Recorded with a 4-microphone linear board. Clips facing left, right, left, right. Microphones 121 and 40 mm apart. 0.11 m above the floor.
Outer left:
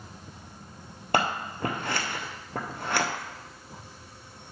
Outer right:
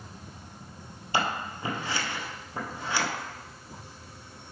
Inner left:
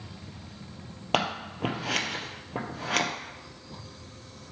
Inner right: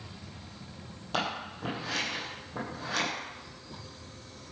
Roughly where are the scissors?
Left.